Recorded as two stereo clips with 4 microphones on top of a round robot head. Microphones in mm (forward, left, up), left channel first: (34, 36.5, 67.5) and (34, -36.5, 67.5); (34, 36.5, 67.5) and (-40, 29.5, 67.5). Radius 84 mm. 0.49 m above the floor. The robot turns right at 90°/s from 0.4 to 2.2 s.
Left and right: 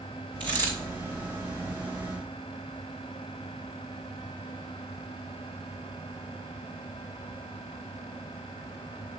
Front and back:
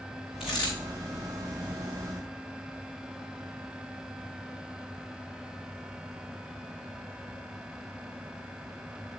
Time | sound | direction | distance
0.4 | a dropped coin | 95° right | 4.5 m